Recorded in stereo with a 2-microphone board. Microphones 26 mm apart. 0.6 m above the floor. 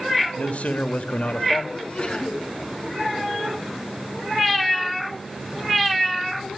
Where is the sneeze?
40° left (ahead or behind), 5.5 m.